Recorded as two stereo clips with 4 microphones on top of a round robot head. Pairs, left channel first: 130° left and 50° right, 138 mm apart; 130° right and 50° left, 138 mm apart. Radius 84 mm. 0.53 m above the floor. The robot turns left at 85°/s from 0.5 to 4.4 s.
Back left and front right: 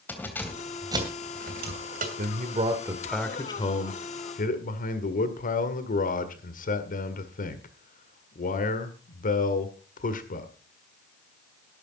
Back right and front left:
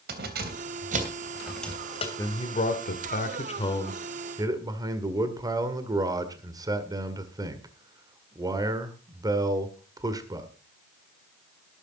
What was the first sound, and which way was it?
Keys jangling, 50° left.